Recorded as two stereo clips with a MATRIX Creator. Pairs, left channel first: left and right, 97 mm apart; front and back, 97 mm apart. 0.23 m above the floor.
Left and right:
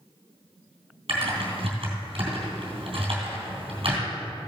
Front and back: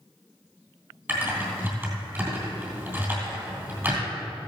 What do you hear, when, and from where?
1.1 s typing on a keyboard: 115° right, 3 m